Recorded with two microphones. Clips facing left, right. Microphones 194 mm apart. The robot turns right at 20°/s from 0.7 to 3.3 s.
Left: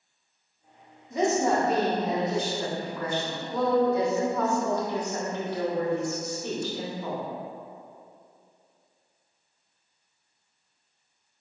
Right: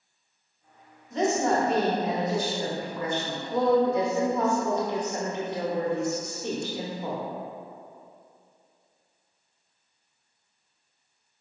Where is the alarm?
No alarm in this recording.